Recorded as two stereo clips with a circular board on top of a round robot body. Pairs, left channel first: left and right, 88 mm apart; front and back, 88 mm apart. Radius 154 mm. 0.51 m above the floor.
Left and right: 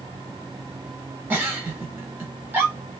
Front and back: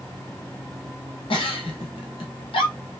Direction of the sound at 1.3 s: 20° right.